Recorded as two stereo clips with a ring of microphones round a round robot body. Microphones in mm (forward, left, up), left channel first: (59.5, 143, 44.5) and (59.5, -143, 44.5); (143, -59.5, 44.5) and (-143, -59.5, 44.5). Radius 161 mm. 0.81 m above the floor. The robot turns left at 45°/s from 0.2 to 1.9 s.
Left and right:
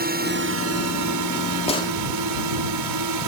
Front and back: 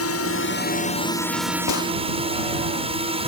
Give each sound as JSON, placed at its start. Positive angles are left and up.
{"t": 0.0, "sound": "a drone", "azimuth_deg": -35}
{"t": 1.7, "sound": "a gunshot", "azimuth_deg": 20}